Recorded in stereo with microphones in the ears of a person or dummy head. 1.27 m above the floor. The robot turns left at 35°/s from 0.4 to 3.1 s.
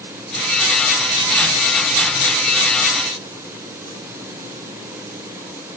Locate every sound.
Only background noise.